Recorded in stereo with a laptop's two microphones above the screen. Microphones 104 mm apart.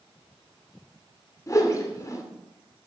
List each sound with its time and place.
1.5 s a whoosh: 30° left (ahead or behind), 2.5 m